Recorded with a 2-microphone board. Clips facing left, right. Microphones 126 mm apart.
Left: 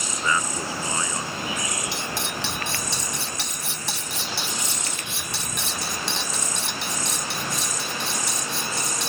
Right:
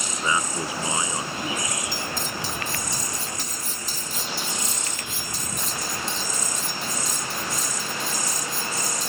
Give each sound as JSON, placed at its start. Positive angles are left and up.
{"t": 0.2, "sound": "a man speaking", "side_deg": -20}
{"t": 1.9, "sound": "cutlery clinking", "side_deg": 75}